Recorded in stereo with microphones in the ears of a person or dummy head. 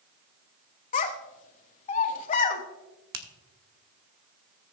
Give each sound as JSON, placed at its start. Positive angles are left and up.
{"t": 0.9, "sound": "a child speaking", "side_deg": 45, "distance_m": 1.2}
{"t": 3.1, "sound": "a finger snap", "side_deg": -65, "distance_m": 1.0}